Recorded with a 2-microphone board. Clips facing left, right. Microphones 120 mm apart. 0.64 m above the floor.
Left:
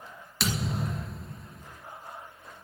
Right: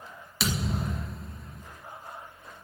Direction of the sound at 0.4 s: 5° right (ahead or behind).